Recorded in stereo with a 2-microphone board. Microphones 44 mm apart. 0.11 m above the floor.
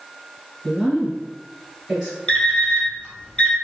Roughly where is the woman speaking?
Centre.